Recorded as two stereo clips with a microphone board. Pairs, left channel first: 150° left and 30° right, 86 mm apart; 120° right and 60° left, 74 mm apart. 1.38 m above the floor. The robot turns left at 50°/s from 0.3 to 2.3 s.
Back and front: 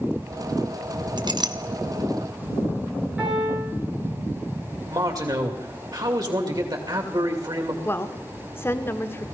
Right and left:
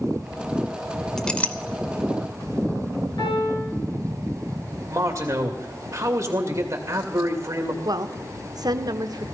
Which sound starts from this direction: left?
A woman speaking, at 7.8 s.